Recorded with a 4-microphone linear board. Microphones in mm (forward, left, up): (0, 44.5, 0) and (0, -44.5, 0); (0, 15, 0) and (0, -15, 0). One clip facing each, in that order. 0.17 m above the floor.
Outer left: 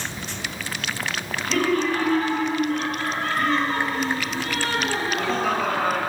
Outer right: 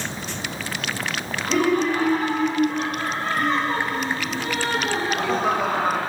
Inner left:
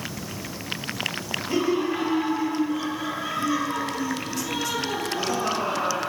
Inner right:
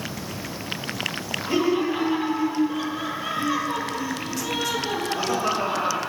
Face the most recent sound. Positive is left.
turn(degrees=-15)  # may be behind; listen again after turning